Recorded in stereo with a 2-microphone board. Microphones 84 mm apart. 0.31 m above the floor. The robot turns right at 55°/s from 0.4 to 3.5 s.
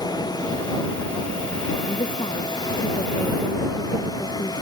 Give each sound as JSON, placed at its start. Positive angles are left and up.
{"t": 1.9, "sound": "a woman speaking", "azimuth_deg": 55}